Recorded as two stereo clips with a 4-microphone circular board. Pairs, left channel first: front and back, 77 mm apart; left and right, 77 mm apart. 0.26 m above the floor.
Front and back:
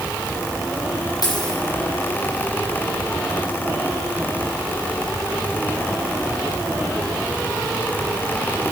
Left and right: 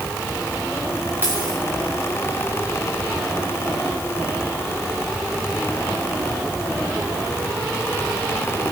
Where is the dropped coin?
30° right, 4 m.